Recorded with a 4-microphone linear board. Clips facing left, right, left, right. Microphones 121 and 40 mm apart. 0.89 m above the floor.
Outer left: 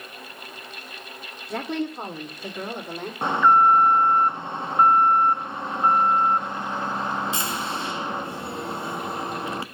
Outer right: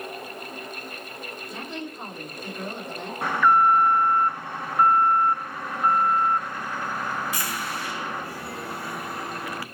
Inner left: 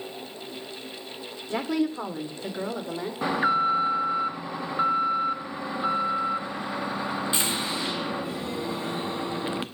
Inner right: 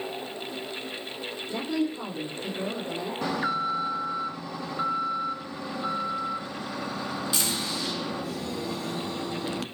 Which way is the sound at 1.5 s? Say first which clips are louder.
Outer left 10 dB, inner left 3 dB; 80° left.